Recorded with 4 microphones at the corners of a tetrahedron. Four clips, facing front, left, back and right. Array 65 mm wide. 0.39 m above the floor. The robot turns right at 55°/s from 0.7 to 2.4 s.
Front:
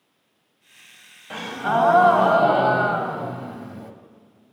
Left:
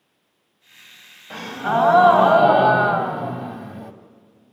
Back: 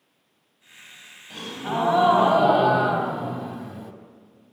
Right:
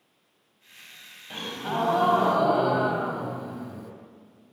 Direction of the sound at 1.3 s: 25° left.